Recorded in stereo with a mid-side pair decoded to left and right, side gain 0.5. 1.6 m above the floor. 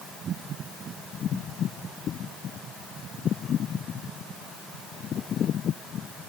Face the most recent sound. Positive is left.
No sound to turn to.